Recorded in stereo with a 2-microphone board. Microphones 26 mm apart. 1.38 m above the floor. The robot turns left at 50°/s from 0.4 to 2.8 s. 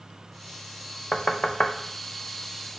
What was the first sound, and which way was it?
Knocking, 25° left (ahead or behind).